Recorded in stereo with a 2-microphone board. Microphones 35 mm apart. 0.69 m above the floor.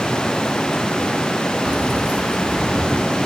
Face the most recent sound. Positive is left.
turn(degrees=-30)  # may be behind; listen again after turning